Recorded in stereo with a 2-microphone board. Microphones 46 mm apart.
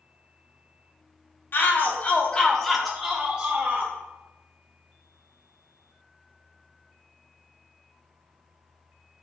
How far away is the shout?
About 1.7 m.